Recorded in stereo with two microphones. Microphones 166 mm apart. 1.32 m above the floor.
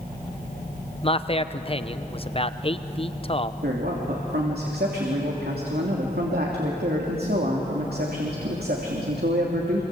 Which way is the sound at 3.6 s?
75° right (ahead or behind).